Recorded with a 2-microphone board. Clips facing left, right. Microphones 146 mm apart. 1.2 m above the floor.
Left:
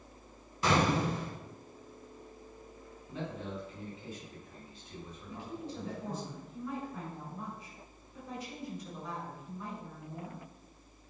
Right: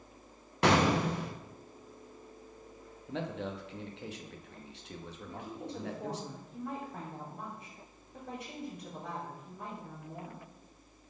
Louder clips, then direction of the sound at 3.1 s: Right 3 dB; 80° right.